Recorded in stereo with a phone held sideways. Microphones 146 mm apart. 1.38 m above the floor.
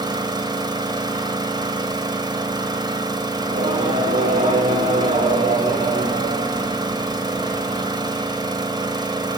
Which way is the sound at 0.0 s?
30° right (ahead or behind).